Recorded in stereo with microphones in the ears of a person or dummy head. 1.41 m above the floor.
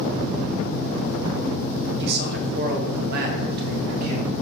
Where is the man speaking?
55° right (ahead or behind), 1.2 m; by 4.3 s 50° right (ahead or behind), 2.5 m.